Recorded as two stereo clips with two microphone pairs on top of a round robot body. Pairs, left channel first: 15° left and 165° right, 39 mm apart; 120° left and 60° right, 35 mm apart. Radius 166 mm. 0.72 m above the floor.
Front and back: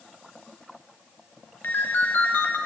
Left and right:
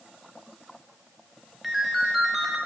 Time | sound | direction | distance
1.6 | a ringtone | 25° left | 2.5 m